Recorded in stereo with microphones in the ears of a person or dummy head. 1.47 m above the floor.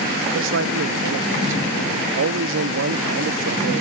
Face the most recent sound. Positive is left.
turn(degrees=-65)  # may be behind; listen again after turning